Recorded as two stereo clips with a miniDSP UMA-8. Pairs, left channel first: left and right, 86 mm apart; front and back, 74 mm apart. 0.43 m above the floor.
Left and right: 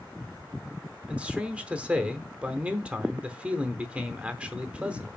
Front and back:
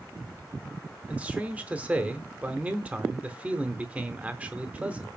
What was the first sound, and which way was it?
A man speaking, 140° right.